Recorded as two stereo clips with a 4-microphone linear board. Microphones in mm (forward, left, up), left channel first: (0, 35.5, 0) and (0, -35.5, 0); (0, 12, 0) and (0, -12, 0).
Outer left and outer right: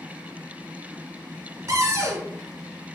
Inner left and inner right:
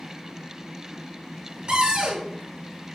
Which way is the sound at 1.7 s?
45° right (ahead or behind).